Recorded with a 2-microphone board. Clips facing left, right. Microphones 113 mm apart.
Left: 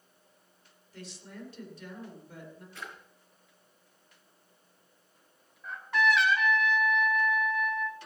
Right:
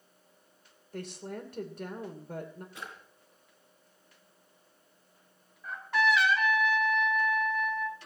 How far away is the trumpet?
About 2.5 m.